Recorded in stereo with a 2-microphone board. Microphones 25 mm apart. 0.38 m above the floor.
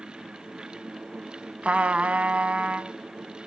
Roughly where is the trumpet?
Right.